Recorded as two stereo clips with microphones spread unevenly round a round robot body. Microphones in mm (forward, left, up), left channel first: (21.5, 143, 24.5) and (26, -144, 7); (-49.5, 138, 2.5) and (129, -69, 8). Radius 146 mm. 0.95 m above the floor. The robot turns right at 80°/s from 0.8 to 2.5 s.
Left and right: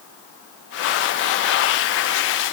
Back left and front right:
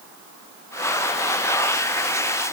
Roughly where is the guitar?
No guitar in this recording.